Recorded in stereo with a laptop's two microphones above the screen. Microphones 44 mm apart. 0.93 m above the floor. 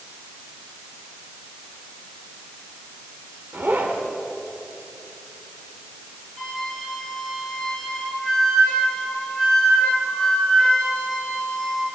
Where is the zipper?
50° right (ahead or behind), 3 m.